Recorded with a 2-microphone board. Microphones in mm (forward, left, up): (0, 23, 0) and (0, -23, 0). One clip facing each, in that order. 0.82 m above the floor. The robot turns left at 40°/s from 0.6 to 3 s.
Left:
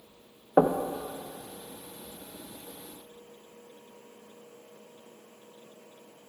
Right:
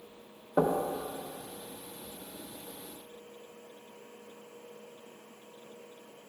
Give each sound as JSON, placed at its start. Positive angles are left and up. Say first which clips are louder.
{"t": 0.6, "sound": "knocking", "louder": "left 5 dB", "side_deg": 45, "distance_m": 0.6}